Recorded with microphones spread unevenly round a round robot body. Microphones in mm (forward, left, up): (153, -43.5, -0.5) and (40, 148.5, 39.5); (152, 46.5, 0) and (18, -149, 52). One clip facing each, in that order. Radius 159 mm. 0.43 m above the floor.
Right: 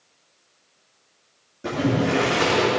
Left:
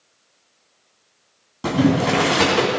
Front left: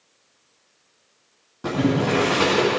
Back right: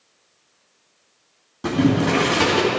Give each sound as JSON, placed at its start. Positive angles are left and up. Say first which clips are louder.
{"t": 1.6, "sound": "boiling", "louder": "left 4 dB, back right 3 dB", "azimuth_deg": 165, "distance_m": 2.0}